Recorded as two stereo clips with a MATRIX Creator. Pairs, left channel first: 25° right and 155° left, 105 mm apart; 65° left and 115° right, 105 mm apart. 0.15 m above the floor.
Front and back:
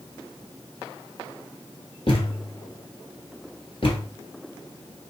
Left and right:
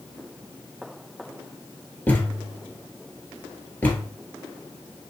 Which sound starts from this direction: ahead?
A thud, at 2.1 s.